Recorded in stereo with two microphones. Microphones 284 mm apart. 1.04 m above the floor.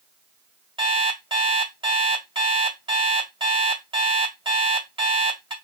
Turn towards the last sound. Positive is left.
turn(degrees=-15)  # may be behind; listen again after turning